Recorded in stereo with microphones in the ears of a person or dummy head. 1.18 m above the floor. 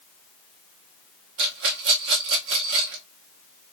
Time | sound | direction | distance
1.4 | a rattle | 60° right (ahead or behind) | 1.0 m